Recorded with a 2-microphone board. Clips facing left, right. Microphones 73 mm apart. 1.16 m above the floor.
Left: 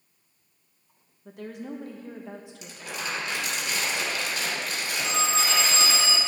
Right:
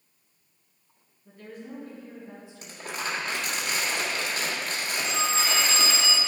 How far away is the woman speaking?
About 1.1 m.